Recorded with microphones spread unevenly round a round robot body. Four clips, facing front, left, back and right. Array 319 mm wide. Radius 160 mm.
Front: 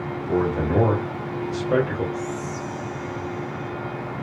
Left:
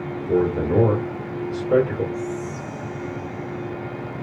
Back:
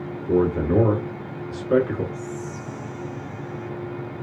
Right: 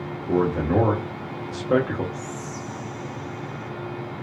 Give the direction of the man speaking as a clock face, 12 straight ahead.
5 o'clock.